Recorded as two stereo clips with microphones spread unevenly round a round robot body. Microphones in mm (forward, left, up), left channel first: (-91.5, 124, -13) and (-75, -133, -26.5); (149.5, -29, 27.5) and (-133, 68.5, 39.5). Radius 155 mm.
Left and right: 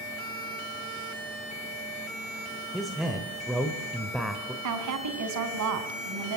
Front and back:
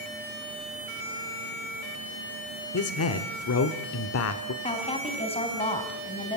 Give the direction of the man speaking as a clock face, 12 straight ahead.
12 o'clock.